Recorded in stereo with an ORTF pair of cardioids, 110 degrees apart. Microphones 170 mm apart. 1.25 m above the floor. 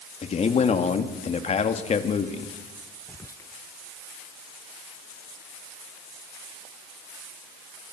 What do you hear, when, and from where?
0.2 s a man speaking: 40° left, 2.5 m
3.1 s whispering: 20° left, 0.9 m